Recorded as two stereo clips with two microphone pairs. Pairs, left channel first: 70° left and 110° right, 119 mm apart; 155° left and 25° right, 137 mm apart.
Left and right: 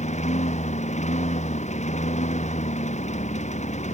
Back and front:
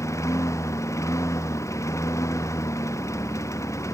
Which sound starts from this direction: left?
A lawn mower, at 0.0 s.